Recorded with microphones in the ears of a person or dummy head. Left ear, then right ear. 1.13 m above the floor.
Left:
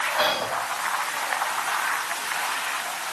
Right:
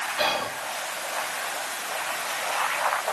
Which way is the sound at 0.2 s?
10° right (ahead or behind).